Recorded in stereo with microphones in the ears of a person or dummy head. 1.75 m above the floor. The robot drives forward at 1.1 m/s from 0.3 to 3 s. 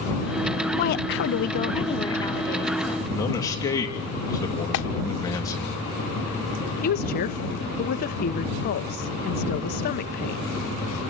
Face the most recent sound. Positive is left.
turn(degrees=45)  # may be behind; listen again after turning